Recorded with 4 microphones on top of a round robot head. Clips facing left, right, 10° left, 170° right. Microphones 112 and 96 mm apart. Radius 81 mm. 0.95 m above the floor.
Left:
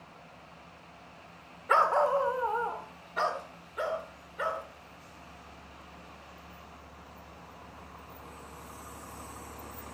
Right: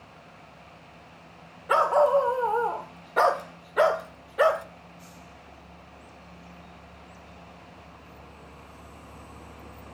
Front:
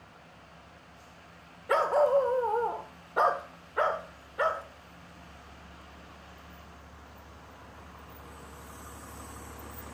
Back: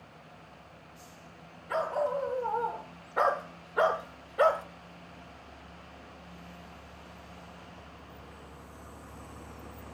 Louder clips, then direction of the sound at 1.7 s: Right 5 dB, front 6 dB; 15° right.